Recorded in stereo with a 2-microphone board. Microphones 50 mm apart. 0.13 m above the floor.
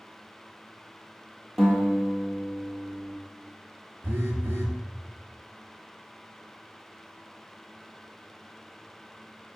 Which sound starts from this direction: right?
A phone buzzing, at 4.0 s.